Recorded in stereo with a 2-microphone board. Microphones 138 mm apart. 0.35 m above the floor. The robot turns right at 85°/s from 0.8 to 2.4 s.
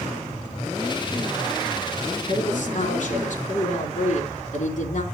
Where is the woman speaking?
55° left (ahead or behind), 3 m; by 5.0 s 65° left (ahead or behind), 3 m.